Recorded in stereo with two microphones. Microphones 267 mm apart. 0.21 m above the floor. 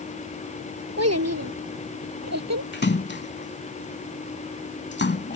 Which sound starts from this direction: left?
A splash, at 2.7 s.